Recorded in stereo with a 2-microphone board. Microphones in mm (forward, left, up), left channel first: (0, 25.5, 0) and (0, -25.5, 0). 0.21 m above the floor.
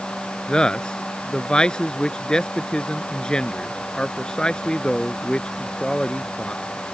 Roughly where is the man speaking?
Centre.